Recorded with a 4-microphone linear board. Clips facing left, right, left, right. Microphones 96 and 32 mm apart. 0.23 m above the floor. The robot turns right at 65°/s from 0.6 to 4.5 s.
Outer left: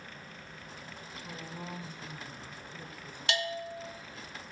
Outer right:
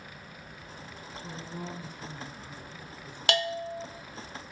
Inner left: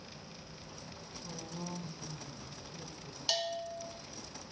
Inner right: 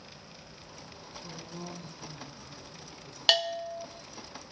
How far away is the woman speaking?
About 4 m.